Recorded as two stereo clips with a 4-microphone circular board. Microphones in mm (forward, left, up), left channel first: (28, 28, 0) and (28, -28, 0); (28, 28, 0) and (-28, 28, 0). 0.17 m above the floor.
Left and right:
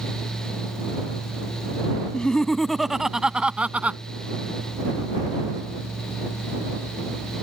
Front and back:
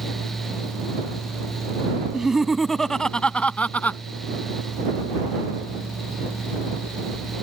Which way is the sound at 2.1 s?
125° left.